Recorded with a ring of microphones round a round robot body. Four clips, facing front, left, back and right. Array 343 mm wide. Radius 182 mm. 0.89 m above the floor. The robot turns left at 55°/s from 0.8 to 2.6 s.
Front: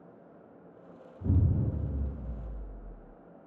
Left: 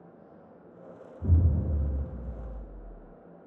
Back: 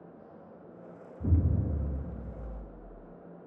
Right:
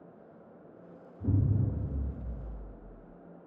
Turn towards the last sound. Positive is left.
turn(degrees=115)